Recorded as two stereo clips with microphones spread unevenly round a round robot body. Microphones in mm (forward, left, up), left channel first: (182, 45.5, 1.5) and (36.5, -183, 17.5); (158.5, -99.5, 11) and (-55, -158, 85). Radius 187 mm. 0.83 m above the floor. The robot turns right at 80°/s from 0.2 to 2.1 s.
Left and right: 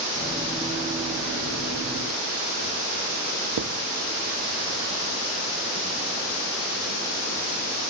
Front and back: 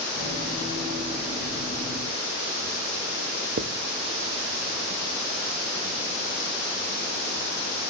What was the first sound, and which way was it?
Writing, 120° right.